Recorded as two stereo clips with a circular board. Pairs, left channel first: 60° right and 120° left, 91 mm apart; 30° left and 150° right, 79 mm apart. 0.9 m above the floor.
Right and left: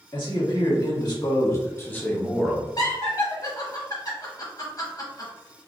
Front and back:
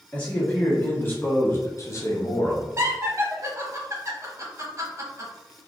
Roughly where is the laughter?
Right.